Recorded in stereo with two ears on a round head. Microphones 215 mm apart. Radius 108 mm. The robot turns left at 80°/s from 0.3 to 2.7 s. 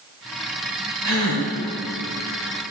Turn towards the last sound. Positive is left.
turn(degrees=175)